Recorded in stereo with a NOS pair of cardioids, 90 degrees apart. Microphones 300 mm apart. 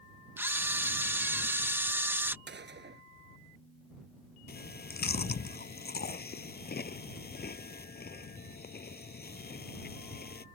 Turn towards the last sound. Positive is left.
turn(degrees=30)